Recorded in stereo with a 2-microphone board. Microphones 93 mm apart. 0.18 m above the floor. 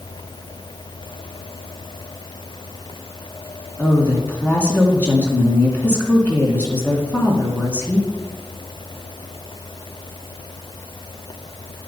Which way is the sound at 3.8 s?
20° left (ahead or behind).